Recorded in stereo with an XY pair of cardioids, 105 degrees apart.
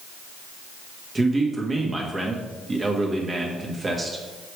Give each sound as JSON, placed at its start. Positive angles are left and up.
{"t": 1.1, "sound": "a man speaking", "azimuth_deg": -25, "distance_m": 1.6}